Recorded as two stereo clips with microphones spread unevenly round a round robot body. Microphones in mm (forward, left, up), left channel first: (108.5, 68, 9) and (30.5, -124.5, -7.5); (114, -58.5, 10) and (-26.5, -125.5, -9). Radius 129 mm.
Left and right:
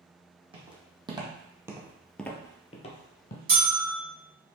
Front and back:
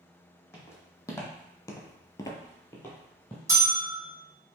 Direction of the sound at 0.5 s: 45° right.